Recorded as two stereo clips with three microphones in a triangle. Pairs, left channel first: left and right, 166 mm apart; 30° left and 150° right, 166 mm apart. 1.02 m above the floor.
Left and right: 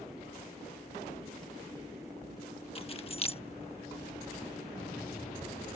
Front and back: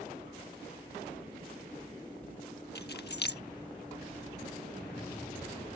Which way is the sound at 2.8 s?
35° left.